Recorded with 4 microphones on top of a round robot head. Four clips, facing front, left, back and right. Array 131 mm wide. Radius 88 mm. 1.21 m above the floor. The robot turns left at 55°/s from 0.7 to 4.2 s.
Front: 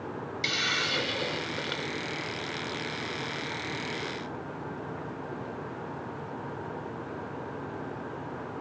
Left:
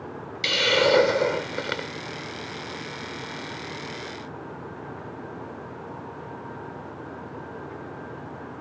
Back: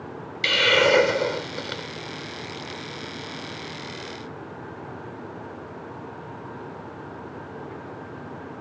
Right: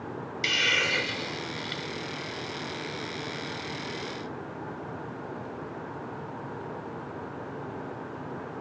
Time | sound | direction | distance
0.4 | a hiss | 150° left | ?